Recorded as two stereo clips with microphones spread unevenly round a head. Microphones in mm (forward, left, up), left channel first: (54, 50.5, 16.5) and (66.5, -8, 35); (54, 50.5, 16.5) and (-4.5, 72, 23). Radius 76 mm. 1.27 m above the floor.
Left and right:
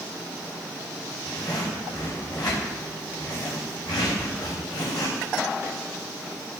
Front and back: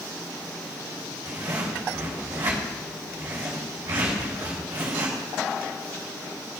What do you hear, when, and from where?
1.2 s a zipper: 175° right, 4.5 m